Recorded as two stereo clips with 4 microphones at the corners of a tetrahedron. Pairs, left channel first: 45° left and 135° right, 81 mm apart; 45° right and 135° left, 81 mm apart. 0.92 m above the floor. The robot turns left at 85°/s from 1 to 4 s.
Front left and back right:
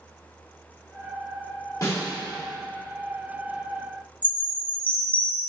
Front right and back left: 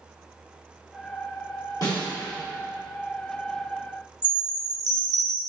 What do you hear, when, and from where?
1.8 s a snare drum: 5° right, 1.6 m; by 2.1 s 30° right, 1.6 m
4.2 s a chime: 110° left, 1.2 m